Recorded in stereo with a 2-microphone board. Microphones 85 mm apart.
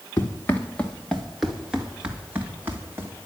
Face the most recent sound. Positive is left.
turn(degrees=-30)  # may be behind; listen again after turning